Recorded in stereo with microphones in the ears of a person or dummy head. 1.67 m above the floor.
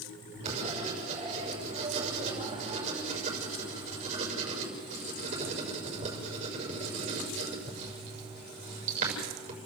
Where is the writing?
35° right (ahead or behind), 6.5 m.